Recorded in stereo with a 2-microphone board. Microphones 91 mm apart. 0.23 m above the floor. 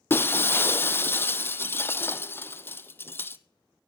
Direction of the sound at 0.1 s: 25° left (ahead or behind).